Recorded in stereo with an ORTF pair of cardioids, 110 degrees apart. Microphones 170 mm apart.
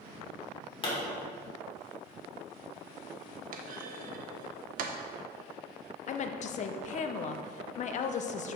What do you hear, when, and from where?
0.8 s a pop: 30° left, 2.5 m
3.5 s a clunk: 55° right, 0.8 m
6.1 s a woman speaking: 45° left, 0.6 m